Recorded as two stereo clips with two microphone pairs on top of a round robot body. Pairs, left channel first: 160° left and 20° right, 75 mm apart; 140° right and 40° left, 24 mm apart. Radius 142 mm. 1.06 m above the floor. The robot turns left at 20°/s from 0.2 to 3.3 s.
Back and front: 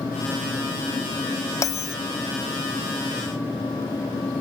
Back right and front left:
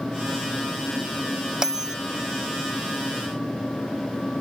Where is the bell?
110° left, 0.6 m; by 1.9 s 105° left, 0.6 m.